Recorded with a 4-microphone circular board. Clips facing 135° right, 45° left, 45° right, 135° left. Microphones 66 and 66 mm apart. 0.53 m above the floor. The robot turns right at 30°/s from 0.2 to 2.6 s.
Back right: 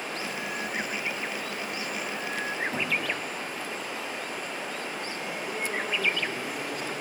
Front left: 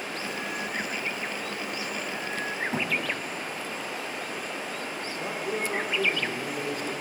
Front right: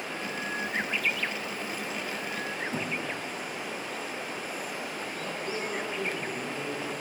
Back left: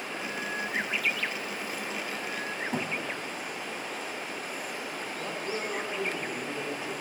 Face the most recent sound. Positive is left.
turn(degrees=70)